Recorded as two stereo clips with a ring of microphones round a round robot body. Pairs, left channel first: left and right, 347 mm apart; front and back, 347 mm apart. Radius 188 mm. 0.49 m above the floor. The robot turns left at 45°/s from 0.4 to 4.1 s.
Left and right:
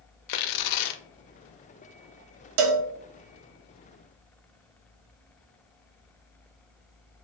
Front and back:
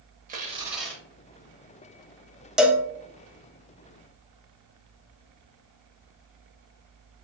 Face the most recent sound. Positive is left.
turn(degrees=-160)